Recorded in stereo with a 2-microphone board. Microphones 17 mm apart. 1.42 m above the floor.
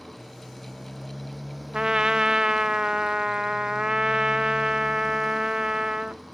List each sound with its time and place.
0.0 s a motorcycle: 10° right (ahead or behind)
1.7 s a trumpet: 45° right (ahead or behind)